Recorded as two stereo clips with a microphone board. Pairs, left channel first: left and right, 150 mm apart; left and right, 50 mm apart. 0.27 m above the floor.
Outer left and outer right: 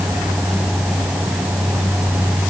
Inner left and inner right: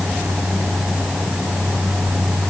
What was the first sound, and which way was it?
Only background noise.